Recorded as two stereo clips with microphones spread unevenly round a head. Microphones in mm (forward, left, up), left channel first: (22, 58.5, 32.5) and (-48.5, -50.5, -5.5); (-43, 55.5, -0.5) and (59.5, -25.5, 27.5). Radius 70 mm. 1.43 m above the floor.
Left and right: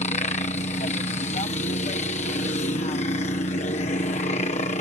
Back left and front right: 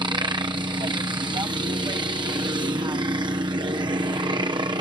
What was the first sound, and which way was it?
A helicopter, 20° left.